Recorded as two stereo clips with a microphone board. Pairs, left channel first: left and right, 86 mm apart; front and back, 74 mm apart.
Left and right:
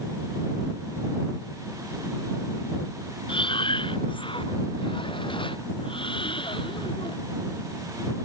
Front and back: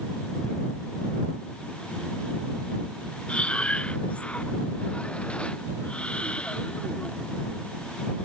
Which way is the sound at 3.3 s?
75° left.